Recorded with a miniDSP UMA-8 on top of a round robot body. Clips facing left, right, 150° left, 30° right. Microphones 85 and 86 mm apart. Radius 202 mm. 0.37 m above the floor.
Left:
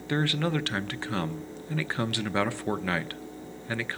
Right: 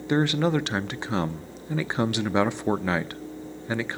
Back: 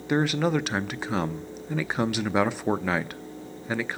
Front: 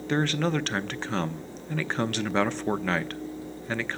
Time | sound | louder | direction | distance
0.1 | a man speaking | right 5 dB, back 2 dB | 140° right | 1.0 m